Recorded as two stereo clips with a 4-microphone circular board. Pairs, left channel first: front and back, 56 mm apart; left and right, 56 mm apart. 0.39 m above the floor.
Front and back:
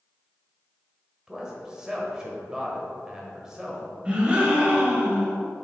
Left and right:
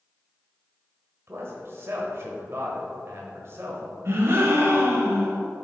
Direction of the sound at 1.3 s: 110° right.